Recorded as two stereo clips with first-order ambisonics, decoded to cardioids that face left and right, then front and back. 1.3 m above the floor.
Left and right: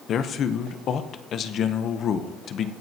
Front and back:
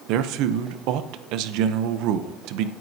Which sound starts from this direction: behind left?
A man speaking, at 0.1 s.